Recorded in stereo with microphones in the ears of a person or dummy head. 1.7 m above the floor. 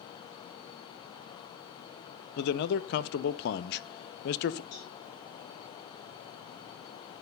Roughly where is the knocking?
No knocking in this recording.